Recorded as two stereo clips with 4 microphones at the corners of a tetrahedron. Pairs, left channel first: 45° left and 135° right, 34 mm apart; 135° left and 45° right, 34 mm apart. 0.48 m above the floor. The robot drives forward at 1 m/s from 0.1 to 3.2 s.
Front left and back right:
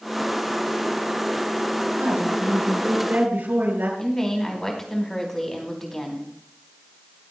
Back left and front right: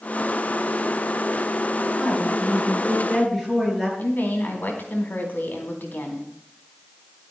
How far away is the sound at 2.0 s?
About 8 m.